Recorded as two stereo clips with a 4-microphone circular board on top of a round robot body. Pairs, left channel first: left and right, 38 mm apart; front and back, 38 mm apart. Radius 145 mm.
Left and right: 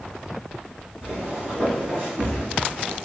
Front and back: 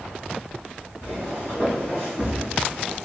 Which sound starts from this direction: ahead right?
Footsteps, at 1.0 s.